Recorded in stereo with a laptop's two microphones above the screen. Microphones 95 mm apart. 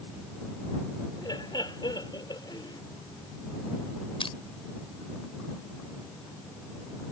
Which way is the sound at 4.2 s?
70° left (ahead or behind).